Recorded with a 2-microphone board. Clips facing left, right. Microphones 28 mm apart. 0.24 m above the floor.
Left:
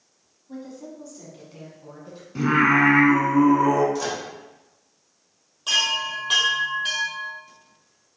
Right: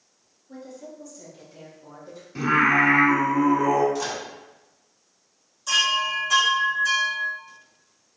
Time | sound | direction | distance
0.5 | a woman speaking | 30° left (ahead or behind) | 1.3 m
2.4 | singing | 5° right (ahead or behind) | 1.0 m
4.0 | a microwave | 5° left (ahead or behind) | 1.4 m
5.7 | a chime | 50° left (ahead or behind) | 1.6 m